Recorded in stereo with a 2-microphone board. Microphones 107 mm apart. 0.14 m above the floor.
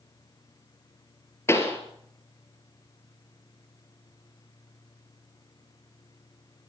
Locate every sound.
1.5 s a pop: 25° left (ahead or behind), 2.5 m